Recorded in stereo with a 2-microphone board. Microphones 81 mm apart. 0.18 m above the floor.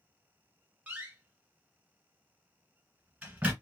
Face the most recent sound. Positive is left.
turn(degrees=-20)  # may be behind; listen again after turning